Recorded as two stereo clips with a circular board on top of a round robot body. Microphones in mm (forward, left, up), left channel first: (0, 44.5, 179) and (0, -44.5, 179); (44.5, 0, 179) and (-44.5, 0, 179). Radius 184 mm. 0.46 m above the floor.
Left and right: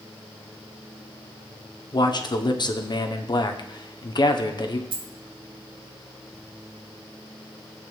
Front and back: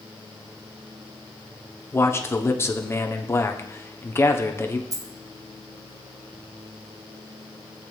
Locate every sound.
1.9 s a man speaking: 60° left, 1.4 m
4.9 s a dropped coin: 125° right, 0.8 m